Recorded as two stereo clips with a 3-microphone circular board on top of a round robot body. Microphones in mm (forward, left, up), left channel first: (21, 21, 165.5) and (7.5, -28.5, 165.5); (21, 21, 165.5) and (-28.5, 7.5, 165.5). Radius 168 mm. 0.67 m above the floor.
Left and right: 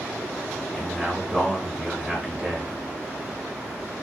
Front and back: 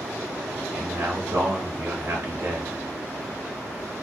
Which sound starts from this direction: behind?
A man speaking, at 0.7 s.